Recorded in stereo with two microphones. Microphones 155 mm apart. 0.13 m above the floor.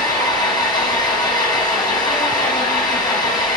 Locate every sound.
0.0 s an engine running: 30° left (ahead or behind), 1.7 m